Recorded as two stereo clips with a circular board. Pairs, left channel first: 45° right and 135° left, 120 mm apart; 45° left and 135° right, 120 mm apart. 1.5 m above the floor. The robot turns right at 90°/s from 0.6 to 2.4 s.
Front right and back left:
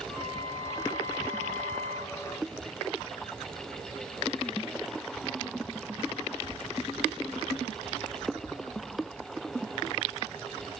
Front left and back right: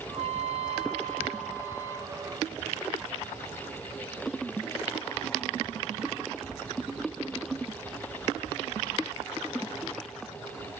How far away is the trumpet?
About 2.0 m.